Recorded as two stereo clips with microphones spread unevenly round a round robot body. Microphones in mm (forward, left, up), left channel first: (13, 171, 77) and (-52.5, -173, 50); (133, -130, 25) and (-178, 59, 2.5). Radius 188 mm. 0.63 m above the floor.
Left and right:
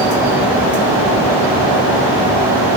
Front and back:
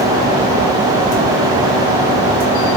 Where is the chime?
No chime in this recording.